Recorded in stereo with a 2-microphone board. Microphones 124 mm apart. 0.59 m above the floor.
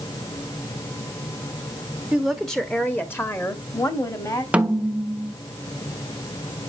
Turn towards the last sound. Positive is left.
turn(degrees=-10)  # may be behind; listen again after turning